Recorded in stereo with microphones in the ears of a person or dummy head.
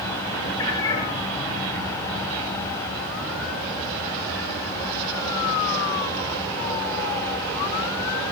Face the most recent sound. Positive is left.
turn(degrees=20)  # may be behind; listen again after turning